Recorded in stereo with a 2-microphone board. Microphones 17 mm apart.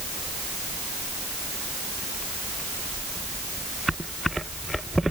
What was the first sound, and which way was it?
Only background noise.